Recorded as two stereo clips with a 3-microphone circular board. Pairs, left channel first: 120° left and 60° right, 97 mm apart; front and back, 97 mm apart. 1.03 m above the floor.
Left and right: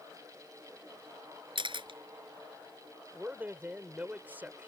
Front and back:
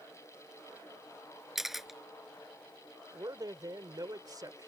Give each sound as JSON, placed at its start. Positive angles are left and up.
{"t": 1.6, "sound": "a camera shutter", "azimuth_deg": -95}
{"t": 3.1, "sound": "a man speaking", "azimuth_deg": -130}